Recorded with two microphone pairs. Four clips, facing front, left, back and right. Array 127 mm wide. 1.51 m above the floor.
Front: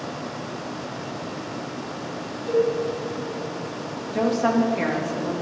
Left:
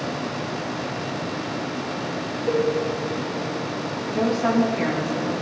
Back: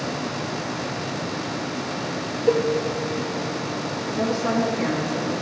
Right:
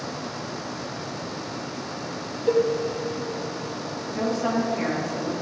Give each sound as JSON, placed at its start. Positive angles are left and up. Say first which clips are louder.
{"t": 2.5, "sound": "a cowbell", "louder": "right 2 dB, back 1 dB", "azimuth_deg": -155, "distance_m": 2.0}
{"t": 4.1, "sound": "a woman speaking", "louder": "left 4 dB, front 3 dB", "azimuth_deg": 25, "distance_m": 2.5}